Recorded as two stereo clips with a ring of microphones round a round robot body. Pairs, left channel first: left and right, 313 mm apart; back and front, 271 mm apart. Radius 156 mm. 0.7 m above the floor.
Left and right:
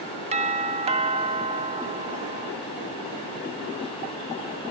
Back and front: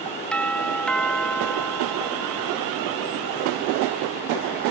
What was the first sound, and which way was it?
A doorbell, 100° right.